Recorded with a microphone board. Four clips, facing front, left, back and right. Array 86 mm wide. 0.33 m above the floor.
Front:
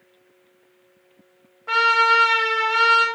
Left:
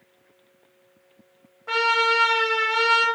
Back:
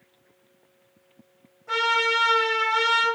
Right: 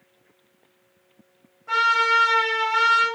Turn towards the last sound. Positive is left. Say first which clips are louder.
# right 2 dB, front 6 dB
turn(degrees=35)